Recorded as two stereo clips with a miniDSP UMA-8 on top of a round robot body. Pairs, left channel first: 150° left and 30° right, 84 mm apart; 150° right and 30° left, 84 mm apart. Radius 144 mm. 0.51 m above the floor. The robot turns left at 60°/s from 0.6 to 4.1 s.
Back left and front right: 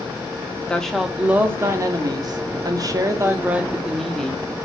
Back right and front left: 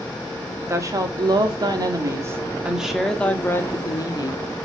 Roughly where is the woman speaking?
Left.